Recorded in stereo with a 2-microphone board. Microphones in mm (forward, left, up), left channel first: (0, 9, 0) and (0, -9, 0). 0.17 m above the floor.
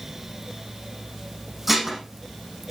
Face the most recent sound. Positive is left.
turn(degrees=-10)  # may be behind; listen again after turning